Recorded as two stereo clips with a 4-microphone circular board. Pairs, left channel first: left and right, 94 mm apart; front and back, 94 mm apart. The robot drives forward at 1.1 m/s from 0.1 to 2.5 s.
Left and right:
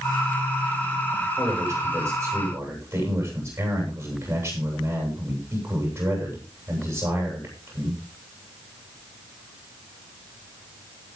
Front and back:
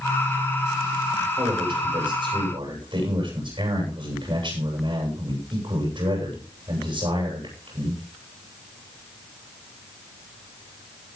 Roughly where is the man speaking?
Behind right.